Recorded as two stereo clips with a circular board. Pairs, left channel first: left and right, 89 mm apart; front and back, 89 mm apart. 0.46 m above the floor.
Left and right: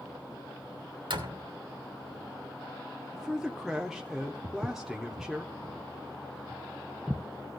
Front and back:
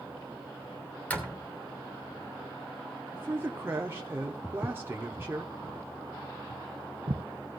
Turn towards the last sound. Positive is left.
turn(degrees=175)